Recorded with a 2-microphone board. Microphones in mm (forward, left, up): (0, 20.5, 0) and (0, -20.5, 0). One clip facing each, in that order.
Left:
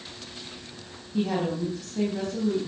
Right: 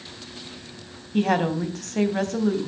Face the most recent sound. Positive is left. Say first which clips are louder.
# right 5 dB
turn(degrees=-60)  # may be behind; listen again after turning